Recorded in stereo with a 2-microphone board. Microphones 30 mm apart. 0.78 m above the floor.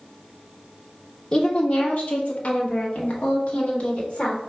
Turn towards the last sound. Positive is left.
turn(degrees=40)  # may be behind; listen again after turning